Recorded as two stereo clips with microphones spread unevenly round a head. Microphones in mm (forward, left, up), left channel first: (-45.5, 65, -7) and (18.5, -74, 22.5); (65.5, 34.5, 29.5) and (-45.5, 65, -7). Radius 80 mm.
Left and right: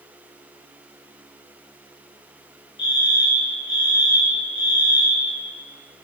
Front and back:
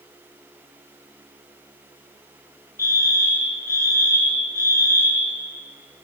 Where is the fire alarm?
50° left, 8.5 m.